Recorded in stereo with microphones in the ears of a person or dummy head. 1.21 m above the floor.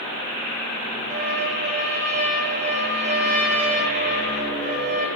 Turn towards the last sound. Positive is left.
turn(degrees=-35)  # may be behind; listen again after turning